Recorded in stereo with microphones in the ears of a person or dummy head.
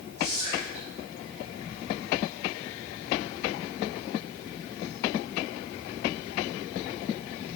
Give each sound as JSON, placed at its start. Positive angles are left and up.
{"t": 0.2, "sound": "whispering", "side_deg": -40, "distance_m": 1.0}